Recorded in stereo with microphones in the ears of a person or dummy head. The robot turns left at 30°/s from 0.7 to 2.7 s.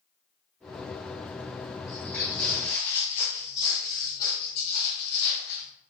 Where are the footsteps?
Centre (ahead or behind), 1.4 m; by 5.7 s 65° left (ahead or behind), 3.5 m.